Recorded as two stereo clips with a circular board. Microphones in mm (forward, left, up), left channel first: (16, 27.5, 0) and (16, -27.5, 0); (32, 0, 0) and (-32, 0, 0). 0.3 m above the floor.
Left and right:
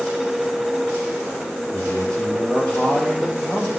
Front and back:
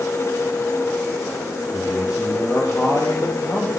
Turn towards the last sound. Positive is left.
turn(degrees=15)